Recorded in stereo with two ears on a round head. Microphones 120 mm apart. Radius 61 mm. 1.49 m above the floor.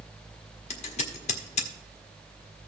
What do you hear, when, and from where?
0.7 s scissors: 55° left (ahead or behind), 1.5 m